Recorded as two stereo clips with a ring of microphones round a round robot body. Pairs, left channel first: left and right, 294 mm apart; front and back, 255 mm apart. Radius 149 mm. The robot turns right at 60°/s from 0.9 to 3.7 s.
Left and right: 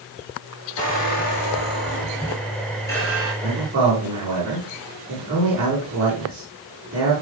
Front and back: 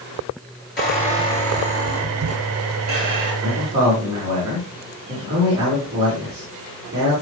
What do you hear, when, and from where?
0.8 s a squeak: 50° left, 5.5 m; by 3.3 s 165° right, 5.5 m
3.4 s a man speaking: 155° right, 5 m; by 7.1 s 135° right, 5 m